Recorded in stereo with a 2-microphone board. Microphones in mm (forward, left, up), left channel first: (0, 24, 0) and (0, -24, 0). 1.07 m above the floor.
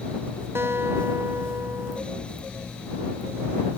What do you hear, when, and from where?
0.6 s a guitar: 55° right (ahead or behind)